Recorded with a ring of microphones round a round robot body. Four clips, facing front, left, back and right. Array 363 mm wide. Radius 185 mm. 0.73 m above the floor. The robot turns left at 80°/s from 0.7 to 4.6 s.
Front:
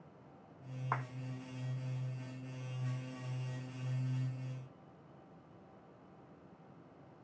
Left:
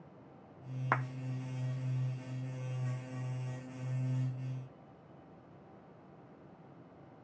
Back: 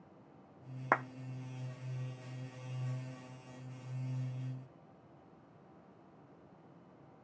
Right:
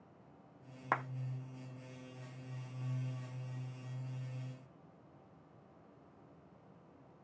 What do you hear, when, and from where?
0.9 s a clap: 170° left, 0.7 m; by 1.1 s 160° left, 0.7 m